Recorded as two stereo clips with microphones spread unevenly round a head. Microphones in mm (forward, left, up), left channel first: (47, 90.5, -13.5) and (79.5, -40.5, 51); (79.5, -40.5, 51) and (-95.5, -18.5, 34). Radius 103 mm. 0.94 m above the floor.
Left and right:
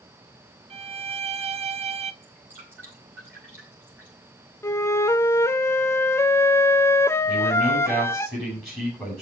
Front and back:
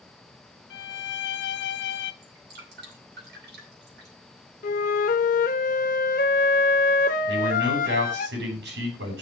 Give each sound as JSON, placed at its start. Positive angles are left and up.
{"t": 0.7, "sound": "a violin", "azimuth_deg": -30, "distance_m": 1.0}
{"t": 2.2, "sound": "dripping", "azimuth_deg": -160, "distance_m": 6.0}
{"t": 4.6, "sound": "a flute", "azimuth_deg": 10, "distance_m": 0.8}
{"t": 7.3, "sound": "a man speaking", "azimuth_deg": -165, "distance_m": 6.5}